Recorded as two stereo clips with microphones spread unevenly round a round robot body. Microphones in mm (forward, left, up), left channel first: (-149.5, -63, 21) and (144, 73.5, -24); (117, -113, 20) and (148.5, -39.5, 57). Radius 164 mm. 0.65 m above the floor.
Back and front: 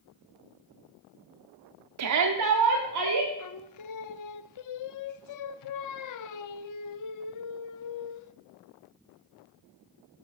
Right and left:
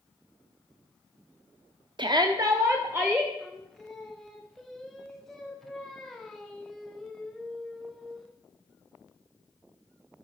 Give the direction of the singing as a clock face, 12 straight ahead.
6 o'clock.